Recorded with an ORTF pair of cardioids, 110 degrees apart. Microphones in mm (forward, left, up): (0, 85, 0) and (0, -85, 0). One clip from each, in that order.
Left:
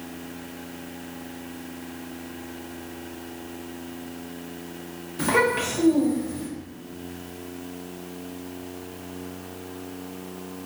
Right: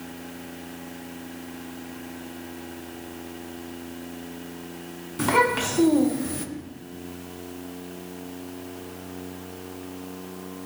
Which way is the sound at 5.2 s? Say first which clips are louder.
Right 1 dB; 10° right.